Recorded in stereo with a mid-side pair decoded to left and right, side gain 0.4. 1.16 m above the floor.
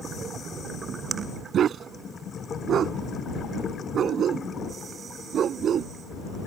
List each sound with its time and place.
1.5 s a dog barking: 70° right